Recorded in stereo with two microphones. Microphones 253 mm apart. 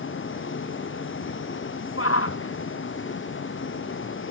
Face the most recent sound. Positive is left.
turn(degrees=65)  # may be behind; listen again after turning